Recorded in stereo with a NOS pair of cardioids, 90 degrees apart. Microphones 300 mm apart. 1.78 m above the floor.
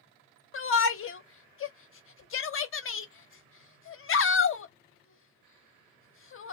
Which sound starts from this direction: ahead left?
A shout, at 0.5 s.